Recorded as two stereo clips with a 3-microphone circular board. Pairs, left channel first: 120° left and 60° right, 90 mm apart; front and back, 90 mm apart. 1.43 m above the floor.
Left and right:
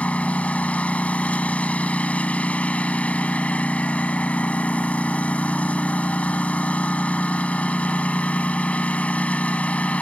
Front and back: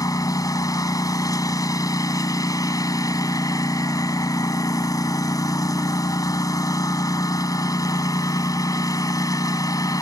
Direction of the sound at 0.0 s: 45° left.